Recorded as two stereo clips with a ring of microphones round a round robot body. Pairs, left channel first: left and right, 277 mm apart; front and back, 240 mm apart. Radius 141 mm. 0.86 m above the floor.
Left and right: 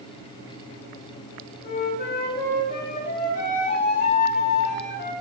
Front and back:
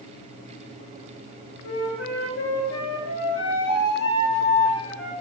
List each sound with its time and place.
1.6 s a flute: 30° left, 4 m